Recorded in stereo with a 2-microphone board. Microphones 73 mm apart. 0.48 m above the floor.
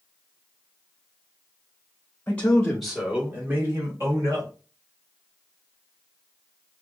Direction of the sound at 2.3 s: 25° left (ahead or behind).